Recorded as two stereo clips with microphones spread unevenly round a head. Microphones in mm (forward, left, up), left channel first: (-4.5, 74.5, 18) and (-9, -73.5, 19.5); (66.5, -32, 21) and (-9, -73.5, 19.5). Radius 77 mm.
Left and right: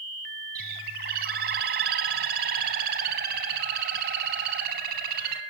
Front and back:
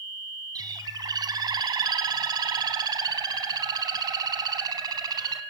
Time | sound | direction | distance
0.6 | a bird | 115° right | 2 m